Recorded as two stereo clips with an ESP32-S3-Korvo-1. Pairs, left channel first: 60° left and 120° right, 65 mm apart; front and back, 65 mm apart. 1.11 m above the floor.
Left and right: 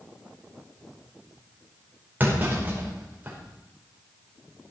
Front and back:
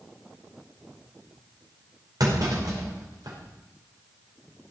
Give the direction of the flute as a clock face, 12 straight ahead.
I don't hear a flute.